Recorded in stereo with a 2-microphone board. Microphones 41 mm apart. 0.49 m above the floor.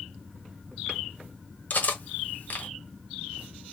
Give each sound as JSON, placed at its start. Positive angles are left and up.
{"t": 1.7, "sound": "cutlery clinking", "side_deg": 45, "distance_m": 1.0}